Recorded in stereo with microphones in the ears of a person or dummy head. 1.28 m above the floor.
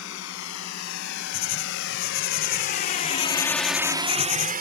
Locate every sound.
0.0 s a drone: 85° left; by 4.6 s 45° right (ahead or behind)
1.3 s writing: 45° left (ahead or behind)